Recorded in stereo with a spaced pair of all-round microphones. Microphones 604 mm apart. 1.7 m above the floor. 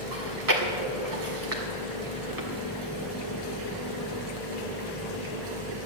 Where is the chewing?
30° right (ahead or behind), 1.9 m.